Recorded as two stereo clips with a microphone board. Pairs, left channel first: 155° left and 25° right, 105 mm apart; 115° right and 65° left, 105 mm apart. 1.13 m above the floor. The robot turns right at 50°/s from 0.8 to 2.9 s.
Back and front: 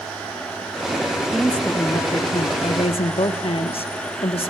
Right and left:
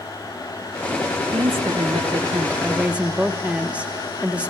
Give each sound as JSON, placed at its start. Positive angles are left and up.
{"t": 1.3, "sound": "a woman speaking", "azimuth_deg": 65, "distance_m": 0.9}